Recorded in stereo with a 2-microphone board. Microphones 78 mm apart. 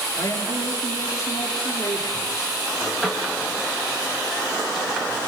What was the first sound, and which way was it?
A man speaking, 35° left (ahead or behind).